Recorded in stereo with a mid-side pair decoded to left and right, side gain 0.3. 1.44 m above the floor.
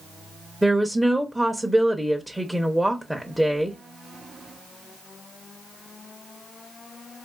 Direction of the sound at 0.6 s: 10° right.